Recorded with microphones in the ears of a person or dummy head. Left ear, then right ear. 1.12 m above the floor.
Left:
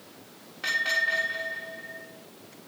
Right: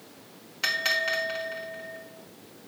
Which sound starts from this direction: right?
A bell, at 0.6 s.